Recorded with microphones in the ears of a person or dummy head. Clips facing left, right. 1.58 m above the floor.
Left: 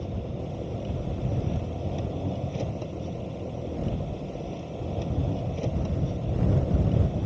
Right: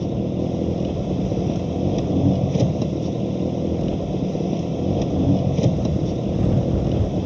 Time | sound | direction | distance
0.0 | an engine running | 75° right (ahead or behind) | ?